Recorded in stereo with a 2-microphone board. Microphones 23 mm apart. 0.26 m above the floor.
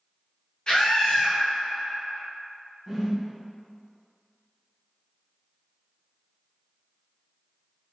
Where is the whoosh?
20° right (ahead or behind), 0.8 m.